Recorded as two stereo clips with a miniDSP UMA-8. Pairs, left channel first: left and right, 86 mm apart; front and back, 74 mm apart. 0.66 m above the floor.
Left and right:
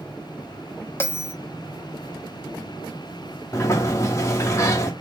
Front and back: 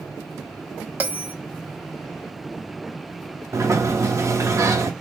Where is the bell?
130° left, 0.7 m.